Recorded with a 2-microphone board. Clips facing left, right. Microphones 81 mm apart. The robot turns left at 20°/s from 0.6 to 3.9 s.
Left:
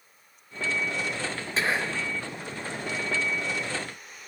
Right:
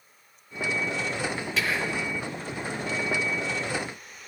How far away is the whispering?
About 0.5 m.